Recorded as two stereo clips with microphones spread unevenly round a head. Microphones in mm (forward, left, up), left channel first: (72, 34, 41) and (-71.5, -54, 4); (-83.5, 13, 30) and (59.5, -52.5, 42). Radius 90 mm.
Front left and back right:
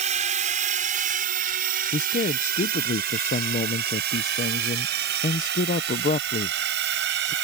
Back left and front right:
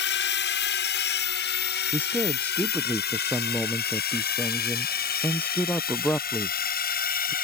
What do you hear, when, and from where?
0.0 s a drone: 160° left; by 7.4 s 175° right
1.9 s a man speaking: 80° left